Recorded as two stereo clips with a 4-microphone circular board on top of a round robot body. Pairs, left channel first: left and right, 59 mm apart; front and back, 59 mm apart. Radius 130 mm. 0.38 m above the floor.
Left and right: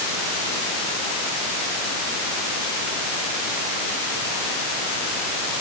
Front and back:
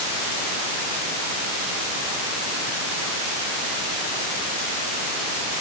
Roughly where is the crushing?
I don't hear crushing.